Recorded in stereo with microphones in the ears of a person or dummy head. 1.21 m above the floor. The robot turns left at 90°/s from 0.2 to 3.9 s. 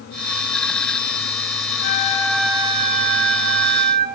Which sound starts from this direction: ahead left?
A flute, at 1.8 s.